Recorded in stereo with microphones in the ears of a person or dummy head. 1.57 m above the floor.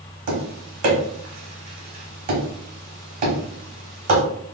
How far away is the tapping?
About 1.0 m.